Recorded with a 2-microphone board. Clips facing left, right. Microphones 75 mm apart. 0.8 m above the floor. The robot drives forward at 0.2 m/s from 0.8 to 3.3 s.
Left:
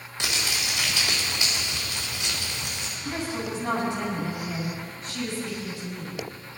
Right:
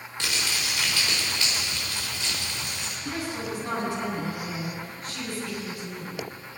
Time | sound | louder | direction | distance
0.2 | crumpling | left 1 dB | 20° left (ahead or behind) | 3.5 m
3.0 | a woman speaking | left 1 dB | 20° left (ahead or behind) | 5.5 m